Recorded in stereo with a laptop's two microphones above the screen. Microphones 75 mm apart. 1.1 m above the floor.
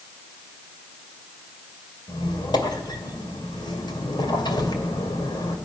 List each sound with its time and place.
2.1 s a squeak: 80° left, 2.5 m